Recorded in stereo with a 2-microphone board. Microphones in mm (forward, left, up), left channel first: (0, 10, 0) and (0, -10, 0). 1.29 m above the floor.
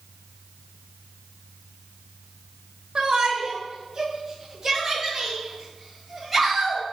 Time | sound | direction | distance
3.0 | a shout | 40° right (ahead or behind) | 2.5 m